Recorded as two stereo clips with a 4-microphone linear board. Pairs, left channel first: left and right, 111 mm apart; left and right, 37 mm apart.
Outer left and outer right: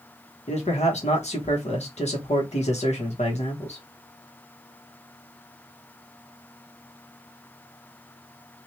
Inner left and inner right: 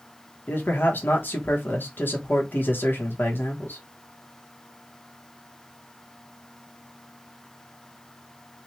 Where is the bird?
No bird in this recording.